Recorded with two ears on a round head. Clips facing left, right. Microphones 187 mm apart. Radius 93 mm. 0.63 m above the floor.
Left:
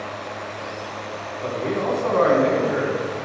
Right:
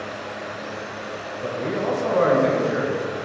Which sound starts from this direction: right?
A man speaking, at 1.4 s.